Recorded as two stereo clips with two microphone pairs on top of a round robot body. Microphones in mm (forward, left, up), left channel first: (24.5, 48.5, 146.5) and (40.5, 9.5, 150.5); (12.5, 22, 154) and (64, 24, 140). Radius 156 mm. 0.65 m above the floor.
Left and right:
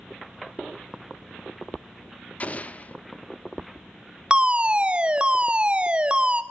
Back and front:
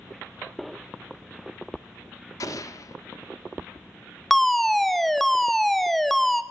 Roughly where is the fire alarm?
Ahead right.